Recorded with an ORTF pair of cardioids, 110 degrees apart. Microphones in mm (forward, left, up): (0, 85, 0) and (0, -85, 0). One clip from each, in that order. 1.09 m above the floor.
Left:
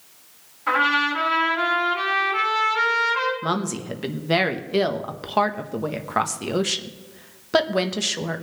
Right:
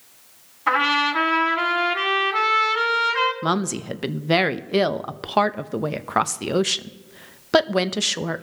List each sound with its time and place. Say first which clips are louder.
0.7 s a trumpet: even; 40° right, 2.5 m
3.4 s a woman speaking: right 2 dB; 30° right, 0.6 m